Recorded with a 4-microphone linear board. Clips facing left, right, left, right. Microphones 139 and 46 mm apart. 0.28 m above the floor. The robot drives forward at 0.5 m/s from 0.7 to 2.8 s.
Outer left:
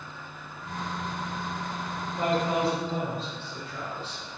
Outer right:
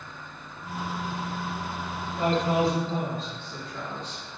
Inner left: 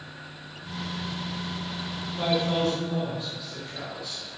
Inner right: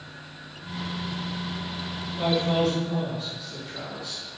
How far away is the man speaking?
About 1.7 m.